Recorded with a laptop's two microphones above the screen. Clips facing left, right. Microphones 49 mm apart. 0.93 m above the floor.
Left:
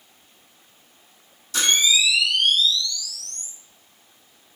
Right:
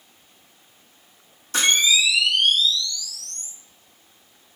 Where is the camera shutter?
35° right (ahead or behind), 0.7 m.